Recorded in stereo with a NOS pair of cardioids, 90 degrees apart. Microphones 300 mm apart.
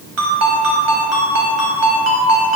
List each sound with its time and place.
0.2 s a ringtone: 55° right, 4 m